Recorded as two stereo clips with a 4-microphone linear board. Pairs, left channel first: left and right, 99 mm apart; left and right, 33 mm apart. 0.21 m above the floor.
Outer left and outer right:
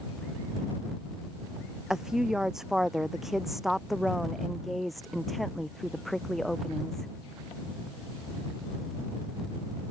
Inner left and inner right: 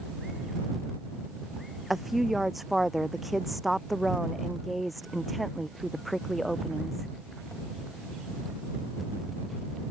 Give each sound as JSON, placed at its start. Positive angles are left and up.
{"t": 1.9, "sound": "a woman speaking", "side_deg": -5}